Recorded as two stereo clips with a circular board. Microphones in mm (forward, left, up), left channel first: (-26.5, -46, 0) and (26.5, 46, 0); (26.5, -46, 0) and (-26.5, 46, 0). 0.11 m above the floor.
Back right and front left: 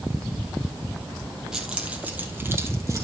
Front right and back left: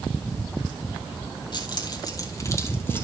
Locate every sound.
1.5 s keys jangling: 25° right, 2 m; by 3.0 s 10° left, 2 m